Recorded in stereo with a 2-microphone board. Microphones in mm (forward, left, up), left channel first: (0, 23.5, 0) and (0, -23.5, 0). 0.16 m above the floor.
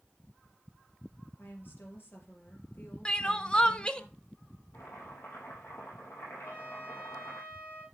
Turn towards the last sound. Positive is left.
turn(degrees=35)  # may be behind; listen again after turning